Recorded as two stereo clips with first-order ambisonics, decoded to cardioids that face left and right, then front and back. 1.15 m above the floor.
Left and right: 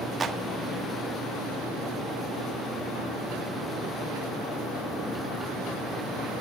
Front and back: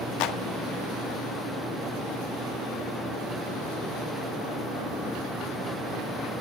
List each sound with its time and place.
0.2 s a clap: 20° right, 1.6 m